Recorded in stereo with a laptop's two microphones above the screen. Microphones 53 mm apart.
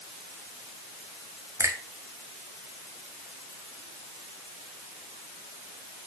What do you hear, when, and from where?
1.6 s a finger snap: 70° right (ahead or behind), 1.7 m